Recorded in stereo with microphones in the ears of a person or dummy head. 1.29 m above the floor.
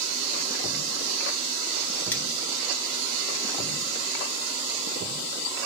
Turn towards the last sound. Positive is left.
turn(degrees=10)  # may be behind; listen again after turning